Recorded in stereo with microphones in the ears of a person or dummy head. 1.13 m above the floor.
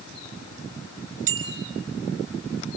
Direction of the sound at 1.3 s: 35° right (ahead or behind).